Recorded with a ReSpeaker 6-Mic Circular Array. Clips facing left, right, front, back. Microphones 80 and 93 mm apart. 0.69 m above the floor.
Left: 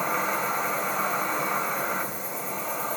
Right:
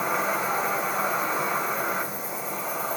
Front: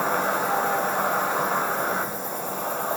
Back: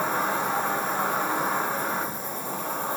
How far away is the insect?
About 3 m.